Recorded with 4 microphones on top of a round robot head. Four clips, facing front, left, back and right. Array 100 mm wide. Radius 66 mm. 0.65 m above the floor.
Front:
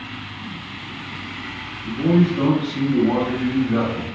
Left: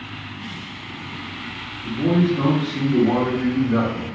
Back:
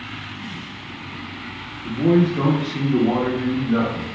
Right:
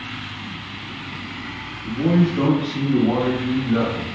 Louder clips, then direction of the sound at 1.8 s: Even, back 1 dB; 145° right.